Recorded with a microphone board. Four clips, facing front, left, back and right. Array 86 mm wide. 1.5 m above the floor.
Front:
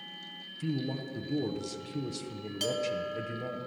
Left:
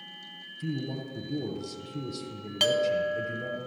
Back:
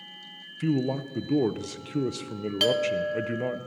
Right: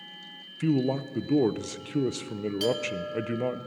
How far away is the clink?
About 1.0 m.